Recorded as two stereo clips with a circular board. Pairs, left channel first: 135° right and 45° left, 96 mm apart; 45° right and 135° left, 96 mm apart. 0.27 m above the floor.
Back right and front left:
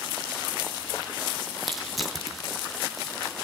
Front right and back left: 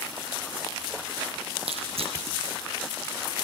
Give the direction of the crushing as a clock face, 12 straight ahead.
8 o'clock.